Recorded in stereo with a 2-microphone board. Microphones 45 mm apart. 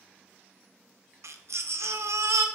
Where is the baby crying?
75° right (ahead or behind), 0.6 m.